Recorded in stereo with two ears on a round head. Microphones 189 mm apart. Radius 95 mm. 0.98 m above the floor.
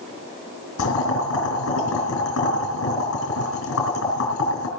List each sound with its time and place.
0.8 s boiling: 70° left (ahead or behind), 4 m